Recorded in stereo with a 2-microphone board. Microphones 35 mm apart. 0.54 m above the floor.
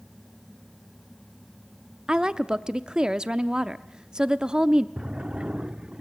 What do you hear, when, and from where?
2.1 s a woman speaking: 20° right (ahead or behind), 0.6 m
5.0 s a drawer: 25° right (ahead or behind), 0.6 m